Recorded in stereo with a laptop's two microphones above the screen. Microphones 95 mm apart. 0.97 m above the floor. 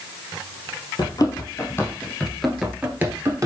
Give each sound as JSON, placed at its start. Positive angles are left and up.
{"t": 1.0, "sound": "running footsteps", "side_deg": 45, "distance_m": 1.3}